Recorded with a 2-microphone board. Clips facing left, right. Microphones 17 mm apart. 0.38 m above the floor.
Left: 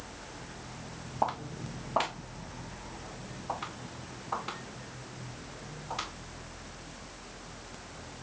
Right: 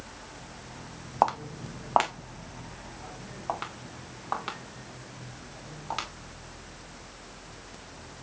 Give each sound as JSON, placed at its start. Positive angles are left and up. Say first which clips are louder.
{"t": 1.2, "sound": "footsteps", "louder": "right 6 dB", "side_deg": -65, "distance_m": 0.8}